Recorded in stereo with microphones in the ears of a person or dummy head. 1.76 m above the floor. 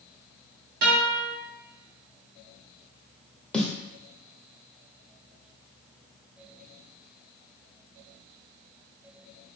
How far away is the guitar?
About 0.7 m.